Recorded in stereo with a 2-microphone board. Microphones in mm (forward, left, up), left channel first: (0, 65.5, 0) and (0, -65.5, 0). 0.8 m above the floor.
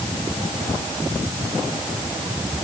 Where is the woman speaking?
No woman speaking in this recording.